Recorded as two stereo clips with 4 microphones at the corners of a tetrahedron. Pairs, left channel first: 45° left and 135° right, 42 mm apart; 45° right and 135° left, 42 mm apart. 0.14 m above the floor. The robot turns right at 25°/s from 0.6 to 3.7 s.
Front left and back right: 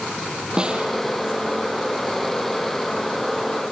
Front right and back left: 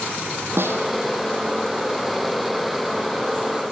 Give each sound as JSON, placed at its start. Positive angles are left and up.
{"t": 0.6, "sound": "a snare drum", "azimuth_deg": 155, "distance_m": 3.5}